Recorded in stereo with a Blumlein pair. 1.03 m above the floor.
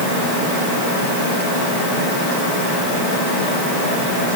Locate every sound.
Only background noise.